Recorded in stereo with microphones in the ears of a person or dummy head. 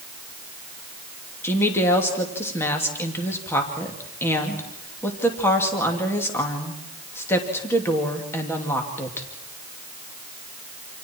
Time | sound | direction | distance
1.4 | a woman speaking | 15° left (ahead or behind) | 2.5 m